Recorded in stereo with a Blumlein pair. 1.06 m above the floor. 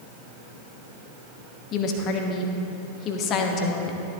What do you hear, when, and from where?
1.7 s a woman speaking: 35° left, 1.2 m